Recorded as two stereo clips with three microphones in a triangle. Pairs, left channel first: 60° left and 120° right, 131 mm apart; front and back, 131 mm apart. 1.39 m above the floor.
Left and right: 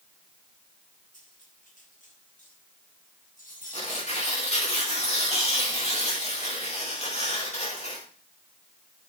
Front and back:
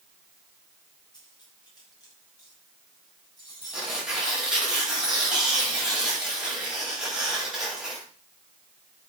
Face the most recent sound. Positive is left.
turn(degrees=95)